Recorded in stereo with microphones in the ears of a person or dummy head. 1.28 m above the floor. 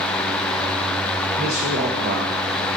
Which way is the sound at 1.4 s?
40° right (ahead or behind).